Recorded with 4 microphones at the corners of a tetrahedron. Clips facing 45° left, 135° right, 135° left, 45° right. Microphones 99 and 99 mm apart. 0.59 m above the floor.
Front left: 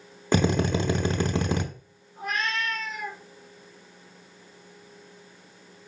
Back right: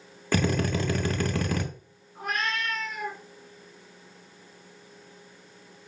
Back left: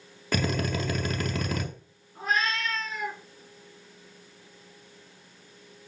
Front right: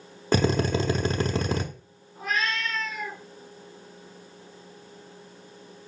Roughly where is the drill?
Ahead.